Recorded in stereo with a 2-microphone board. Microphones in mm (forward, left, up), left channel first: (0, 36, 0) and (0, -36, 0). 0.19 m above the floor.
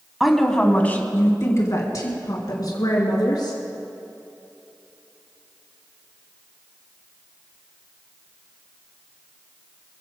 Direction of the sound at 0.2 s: 5° right (ahead or behind).